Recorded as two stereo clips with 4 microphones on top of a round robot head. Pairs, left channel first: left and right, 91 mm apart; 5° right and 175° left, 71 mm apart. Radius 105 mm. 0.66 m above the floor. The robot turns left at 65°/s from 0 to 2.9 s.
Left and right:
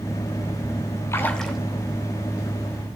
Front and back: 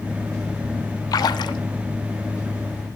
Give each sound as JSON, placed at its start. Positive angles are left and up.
{"t": 1.1, "sound": "a splash", "azimuth_deg": 25, "distance_m": 0.7}